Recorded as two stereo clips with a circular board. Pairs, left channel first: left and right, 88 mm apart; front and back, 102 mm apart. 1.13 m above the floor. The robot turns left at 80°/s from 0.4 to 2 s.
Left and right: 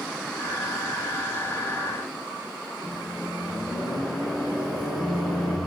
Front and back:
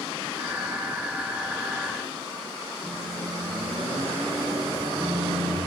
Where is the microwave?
150° left, 1.8 m.